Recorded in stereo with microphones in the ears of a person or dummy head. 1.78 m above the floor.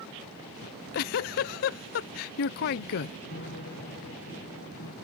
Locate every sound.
0.6 s a giggle: 50° left (ahead or behind)
3.3 s a piano: 55° left (ahead or behind)